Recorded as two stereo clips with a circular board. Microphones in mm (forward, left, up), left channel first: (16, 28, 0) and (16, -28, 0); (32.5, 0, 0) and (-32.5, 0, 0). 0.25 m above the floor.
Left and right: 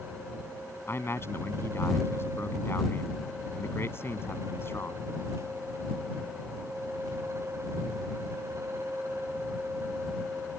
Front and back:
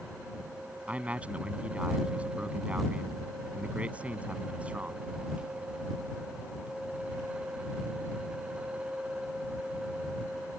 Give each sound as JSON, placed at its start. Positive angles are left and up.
{"t": 0.9, "sound": "a man speaking", "azimuth_deg": 115}